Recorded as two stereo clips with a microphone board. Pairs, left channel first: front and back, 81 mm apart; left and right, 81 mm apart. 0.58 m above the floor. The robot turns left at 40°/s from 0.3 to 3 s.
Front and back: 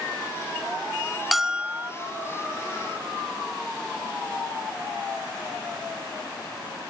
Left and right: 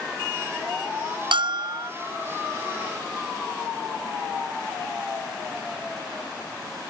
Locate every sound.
1.3 s a bell: 90° right, 0.5 m; by 1.9 s 115° right, 0.5 m